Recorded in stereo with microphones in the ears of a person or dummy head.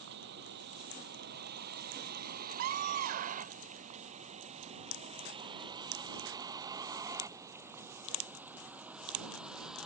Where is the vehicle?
65° right (ahead or behind); by 9.9 s 5° left (ahead or behind).